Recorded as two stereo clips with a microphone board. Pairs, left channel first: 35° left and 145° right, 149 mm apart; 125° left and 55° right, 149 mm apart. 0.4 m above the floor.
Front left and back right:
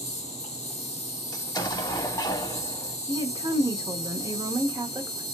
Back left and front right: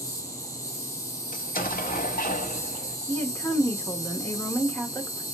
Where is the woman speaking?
175° right, 0.8 m.